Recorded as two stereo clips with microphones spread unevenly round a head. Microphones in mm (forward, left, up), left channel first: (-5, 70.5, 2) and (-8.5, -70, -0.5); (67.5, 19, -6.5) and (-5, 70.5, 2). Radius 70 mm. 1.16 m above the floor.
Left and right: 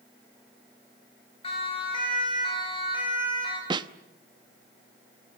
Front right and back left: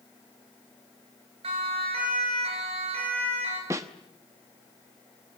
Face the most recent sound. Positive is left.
turn(degrees=-150)